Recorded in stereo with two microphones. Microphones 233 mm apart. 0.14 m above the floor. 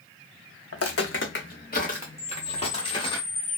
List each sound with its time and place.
0.7 s footsteps: 75° left (ahead or behind), 0.6 m; by 3.2 s 20° left (ahead or behind), 1.6 m
2.2 s a camera shutter: 40° left (ahead or behind), 0.6 m